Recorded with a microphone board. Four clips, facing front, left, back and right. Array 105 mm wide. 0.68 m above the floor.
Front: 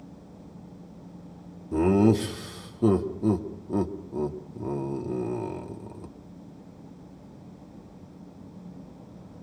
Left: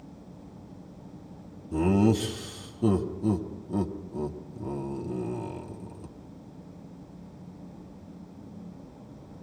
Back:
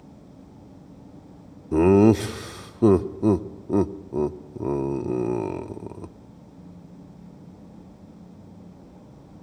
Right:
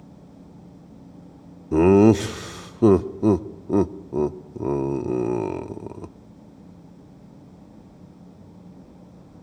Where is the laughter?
115° right, 0.9 m.